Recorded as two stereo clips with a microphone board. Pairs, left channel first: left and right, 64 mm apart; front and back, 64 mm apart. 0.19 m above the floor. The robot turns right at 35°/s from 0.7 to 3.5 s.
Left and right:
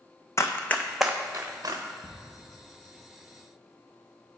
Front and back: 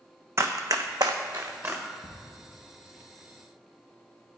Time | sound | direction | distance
0.4 | running footsteps | 135° left | 0.6 m
2.0 | ticking | 175° left | 2.5 m